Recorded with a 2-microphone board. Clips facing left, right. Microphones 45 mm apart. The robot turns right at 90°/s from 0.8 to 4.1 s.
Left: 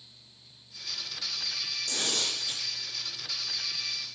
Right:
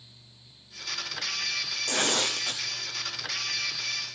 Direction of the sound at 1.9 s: 140° right.